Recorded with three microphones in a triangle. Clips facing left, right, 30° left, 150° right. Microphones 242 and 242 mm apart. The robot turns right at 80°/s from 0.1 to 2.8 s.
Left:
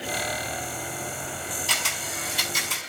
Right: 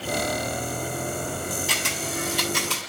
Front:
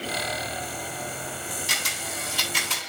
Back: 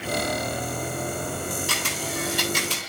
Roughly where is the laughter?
I don't hear laughter.